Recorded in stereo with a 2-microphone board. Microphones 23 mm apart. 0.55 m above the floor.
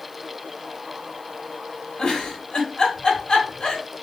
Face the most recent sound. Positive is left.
turn(degrees=35)  # may be behind; listen again after turning